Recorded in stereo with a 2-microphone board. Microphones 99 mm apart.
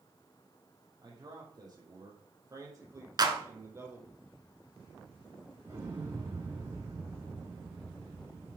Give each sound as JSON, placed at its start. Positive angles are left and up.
{"t": 1.0, "sound": "a man speaking", "side_deg": -40, "distance_m": 5.0}
{"t": 3.2, "sound": "a clap", "side_deg": -45, "distance_m": 1.7}
{"t": 5.7, "sound": "an explosion", "side_deg": -30, "distance_m": 5.0}